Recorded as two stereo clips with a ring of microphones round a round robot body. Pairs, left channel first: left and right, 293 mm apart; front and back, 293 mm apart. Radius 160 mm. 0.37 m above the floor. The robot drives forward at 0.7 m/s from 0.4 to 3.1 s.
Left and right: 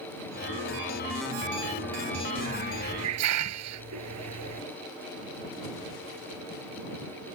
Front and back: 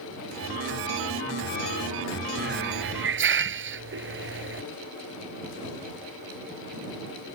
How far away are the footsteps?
No footsteps in this recording.